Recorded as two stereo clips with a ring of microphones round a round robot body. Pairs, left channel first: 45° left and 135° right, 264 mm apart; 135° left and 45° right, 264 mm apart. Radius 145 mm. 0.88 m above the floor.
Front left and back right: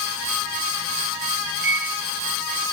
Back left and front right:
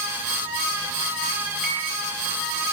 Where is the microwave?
55° right, 2.0 m.